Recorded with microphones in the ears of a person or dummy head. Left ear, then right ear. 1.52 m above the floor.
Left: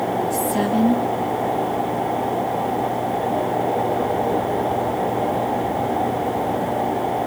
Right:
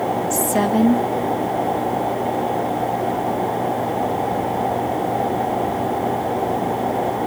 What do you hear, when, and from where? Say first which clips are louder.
0.3 s a woman speaking: right 2 dB; 20° right (ahead or behind), 2.5 m